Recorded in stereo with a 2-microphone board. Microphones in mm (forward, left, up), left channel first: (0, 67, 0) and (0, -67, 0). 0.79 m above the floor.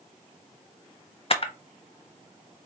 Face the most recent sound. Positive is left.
turn(degrees=45)  # may be behind; listen again after turning